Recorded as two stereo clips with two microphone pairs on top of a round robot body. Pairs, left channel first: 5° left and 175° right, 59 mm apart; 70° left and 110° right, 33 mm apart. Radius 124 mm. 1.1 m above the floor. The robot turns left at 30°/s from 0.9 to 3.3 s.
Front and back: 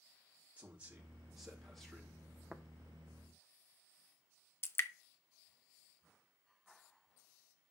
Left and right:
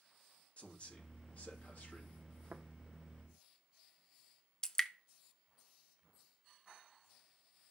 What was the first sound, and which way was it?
A man speaking, 115° left.